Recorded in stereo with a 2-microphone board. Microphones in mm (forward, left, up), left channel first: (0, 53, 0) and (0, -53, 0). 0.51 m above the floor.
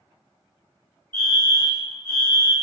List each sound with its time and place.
1.1 s a fire alarm: 20° left (ahead or behind), 1.7 m